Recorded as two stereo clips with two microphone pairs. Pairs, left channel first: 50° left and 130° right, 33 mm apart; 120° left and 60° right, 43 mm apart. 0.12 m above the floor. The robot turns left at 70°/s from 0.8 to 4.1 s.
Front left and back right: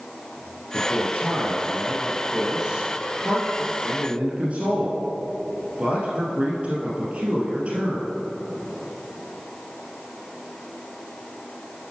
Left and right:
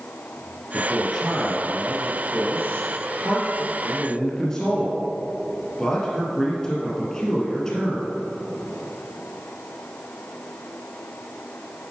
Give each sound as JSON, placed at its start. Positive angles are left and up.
{"t": 0.7, "sound": "a man speaking", "azimuth_deg": 60, "distance_m": 2.5}